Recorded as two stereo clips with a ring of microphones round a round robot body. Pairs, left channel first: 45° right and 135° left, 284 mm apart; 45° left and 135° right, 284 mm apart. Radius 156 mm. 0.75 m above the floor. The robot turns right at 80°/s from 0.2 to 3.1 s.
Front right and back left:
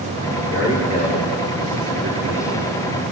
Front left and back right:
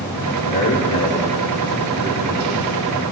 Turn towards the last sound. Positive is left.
turn(degrees=-105)